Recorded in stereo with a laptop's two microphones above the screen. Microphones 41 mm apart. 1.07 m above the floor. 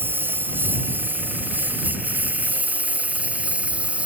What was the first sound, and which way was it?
A lawn mower, 55° right (ahead or behind).